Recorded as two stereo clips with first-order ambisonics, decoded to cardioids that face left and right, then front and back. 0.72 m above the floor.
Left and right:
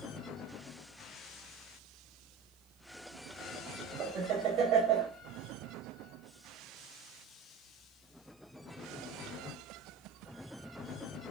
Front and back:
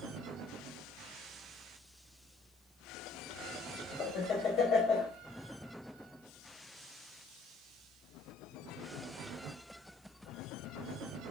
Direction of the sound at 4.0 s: 55° right.